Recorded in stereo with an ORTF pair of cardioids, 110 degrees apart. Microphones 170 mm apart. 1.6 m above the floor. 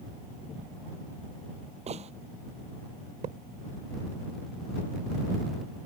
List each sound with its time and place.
1.9 s a gunshot: 45° right
3.2 s a thud: 50° right